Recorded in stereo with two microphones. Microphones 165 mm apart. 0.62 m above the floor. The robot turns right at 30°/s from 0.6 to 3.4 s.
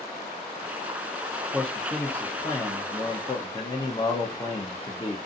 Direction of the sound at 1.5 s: Centre (ahead or behind).